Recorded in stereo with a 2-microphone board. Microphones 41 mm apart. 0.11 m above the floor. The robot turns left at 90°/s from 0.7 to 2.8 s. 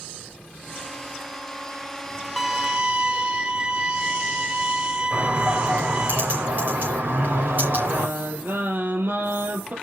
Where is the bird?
55° right (ahead or behind), 5.5 m.